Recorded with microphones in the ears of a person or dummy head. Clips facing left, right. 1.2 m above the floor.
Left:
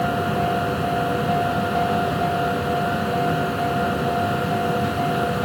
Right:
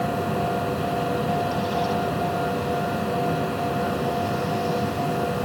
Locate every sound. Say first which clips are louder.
0.0 s a machine running: left 3 dB; 5° left (ahead or behind)